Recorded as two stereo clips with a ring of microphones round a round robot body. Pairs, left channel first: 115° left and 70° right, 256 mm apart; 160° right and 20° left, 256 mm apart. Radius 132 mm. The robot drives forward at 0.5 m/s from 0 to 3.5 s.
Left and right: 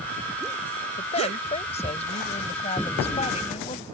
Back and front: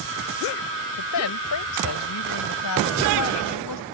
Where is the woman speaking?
Straight behind.